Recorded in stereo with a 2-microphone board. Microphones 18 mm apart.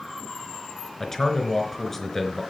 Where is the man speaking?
15° left (ahead or behind), 3 m.